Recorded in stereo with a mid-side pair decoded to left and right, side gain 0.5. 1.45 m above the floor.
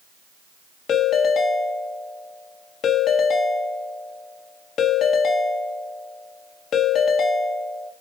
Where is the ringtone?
60° left, 1.9 m.